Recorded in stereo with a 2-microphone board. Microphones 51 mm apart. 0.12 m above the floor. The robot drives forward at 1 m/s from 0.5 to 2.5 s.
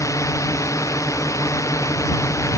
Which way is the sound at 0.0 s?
85° left.